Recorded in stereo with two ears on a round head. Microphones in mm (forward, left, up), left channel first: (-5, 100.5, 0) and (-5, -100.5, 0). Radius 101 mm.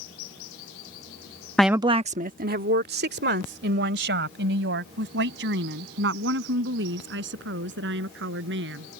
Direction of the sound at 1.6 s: 5° left (ahead or behind).